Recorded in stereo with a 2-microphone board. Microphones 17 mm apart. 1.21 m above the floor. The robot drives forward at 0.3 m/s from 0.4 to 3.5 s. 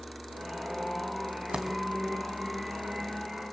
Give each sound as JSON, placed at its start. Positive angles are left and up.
{"t": 1.5, "sound": "a dropped coin", "side_deg": -65, "distance_m": 2.5}